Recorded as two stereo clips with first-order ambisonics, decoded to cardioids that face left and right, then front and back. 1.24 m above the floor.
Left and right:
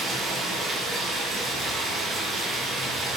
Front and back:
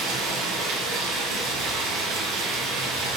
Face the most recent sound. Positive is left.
turn(degrees=-155)